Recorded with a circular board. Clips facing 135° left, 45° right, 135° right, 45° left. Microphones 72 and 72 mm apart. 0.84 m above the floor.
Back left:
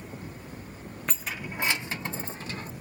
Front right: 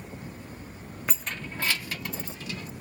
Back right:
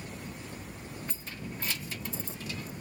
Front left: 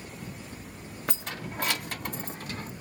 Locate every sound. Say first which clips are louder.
1.1 s keys jangling: even, front left 5 dB; 40° left; by 2.7 s 85° left